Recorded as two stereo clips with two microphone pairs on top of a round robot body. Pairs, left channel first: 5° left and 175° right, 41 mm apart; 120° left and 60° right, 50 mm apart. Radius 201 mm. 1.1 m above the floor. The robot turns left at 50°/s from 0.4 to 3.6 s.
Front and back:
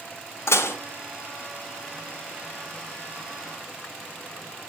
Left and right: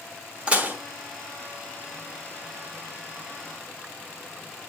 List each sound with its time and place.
0.5 s dishes clattering: 5° left, 1.2 m; by 0.8 s 10° right, 1.2 m